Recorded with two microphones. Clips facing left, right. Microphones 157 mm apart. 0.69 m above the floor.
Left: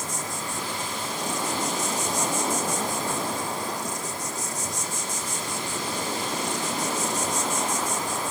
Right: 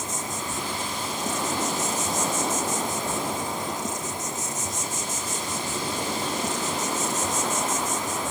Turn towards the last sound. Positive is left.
turn(degrees=-20)  # may be behind; listen again after turning